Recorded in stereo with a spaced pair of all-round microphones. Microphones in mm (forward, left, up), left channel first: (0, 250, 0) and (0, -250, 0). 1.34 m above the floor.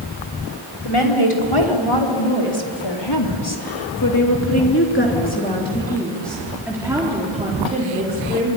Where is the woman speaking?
80° left, 4 m; by 8.6 s 20° right (ahead or behind), 4 m.